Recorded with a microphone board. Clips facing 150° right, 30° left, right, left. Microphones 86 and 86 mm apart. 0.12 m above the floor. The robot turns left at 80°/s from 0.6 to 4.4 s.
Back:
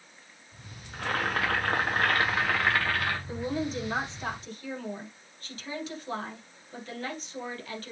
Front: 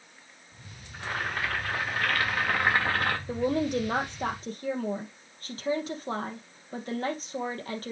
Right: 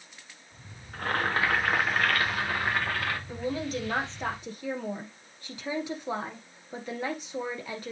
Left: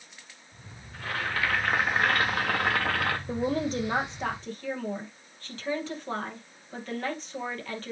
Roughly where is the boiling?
Right.